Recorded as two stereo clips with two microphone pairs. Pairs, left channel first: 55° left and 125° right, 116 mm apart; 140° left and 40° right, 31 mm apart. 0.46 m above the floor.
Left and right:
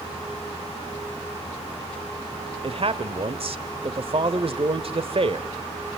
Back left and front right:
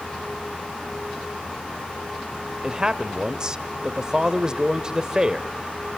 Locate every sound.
2.6 s a man speaking: 105° right, 1.3 m